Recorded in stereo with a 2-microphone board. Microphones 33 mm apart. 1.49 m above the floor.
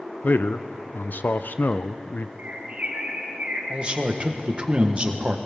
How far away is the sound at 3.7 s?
About 1.2 m.